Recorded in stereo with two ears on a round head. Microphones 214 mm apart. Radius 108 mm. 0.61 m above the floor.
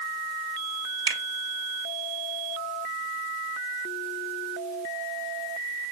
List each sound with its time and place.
1.1 s a finger snap: 15° right (ahead or behind), 1.8 m